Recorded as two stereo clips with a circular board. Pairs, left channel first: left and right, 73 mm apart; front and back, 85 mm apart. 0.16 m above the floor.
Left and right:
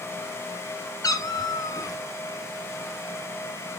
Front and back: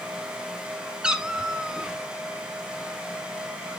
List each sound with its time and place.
1.0 s a cat meowing: 100° left, 0.6 m